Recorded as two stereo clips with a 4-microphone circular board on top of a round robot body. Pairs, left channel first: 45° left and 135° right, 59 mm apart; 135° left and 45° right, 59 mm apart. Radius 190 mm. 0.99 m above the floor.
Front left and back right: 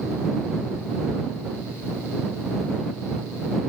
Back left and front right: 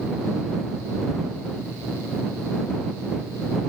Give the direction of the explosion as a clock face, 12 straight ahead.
I don't hear an explosion.